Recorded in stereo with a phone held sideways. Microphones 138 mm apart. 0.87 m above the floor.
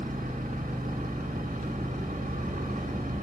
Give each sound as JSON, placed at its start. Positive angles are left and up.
{"t": 0.0, "sound": "an engine running", "side_deg": -80, "distance_m": 1.2}